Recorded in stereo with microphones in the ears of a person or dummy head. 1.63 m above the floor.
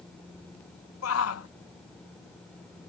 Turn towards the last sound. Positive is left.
turn(degrees=85)